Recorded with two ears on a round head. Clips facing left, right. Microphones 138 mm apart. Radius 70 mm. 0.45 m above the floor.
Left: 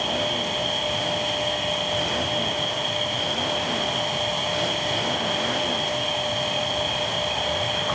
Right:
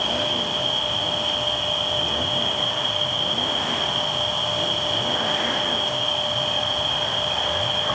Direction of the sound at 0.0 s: 10° left (ahead or behind).